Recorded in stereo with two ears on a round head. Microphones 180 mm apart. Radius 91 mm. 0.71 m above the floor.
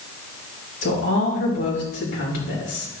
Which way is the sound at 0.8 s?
65° left (ahead or behind).